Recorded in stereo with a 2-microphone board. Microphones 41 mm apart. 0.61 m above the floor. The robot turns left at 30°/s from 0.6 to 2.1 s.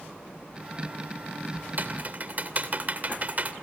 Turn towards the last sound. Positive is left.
turn(degrees=-40)  # may be behind; listen again after turning